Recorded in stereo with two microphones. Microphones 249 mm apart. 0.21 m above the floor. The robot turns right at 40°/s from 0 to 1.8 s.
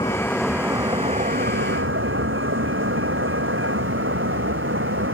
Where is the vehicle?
160° left; by 5.1 s 125° right.